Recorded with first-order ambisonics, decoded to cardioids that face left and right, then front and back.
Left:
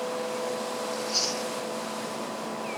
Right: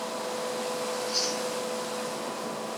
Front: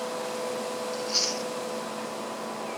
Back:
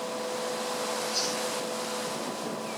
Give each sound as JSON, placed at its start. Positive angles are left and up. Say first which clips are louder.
{"t": 0.9, "sound": "chewing", "louder": "left 2 dB, front 5 dB", "azimuth_deg": 15, "distance_m": 1.4}